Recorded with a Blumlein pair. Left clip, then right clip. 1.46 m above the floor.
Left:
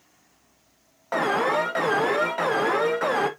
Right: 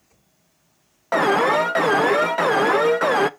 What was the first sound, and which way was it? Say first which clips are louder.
An alarm: right 5 dB; 15° right.